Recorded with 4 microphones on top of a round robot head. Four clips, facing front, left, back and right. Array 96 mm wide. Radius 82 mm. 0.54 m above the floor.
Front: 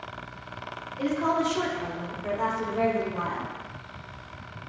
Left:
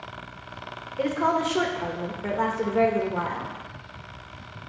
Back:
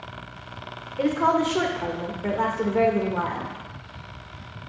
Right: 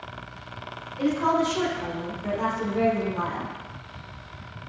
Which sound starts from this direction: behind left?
A woman speaking, at 1.0 s.